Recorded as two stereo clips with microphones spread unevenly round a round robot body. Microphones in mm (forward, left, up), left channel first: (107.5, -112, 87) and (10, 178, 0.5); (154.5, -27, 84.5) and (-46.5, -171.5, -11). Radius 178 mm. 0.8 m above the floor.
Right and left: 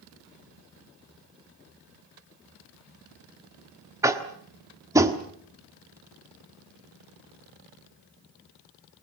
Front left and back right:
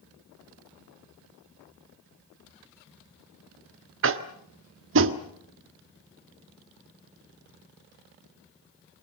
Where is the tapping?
175° right, 1.1 m.